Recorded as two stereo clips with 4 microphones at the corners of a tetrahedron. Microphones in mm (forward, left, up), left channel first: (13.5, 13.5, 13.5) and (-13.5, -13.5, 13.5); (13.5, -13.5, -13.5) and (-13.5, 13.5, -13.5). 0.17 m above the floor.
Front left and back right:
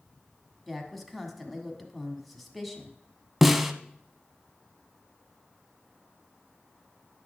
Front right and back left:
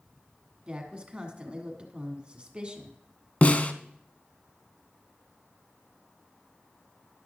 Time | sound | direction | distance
0.7 | a woman speaking | 130° left | 1.5 m
3.4 | a snare drum | 50° right | 0.6 m